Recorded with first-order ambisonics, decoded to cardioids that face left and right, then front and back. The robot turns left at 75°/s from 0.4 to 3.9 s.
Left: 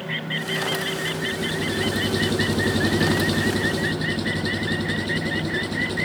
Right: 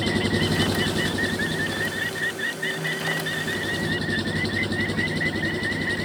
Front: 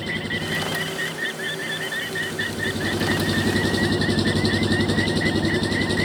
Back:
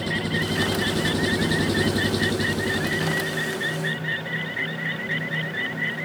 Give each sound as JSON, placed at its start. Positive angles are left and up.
{"t": 0.0, "sound": "an engine running", "azimuth_deg": -95}